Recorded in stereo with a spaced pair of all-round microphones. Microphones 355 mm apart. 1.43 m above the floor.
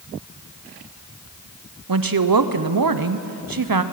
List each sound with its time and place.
1.9 s a woman speaking: 70° right (ahead or behind), 0.7 m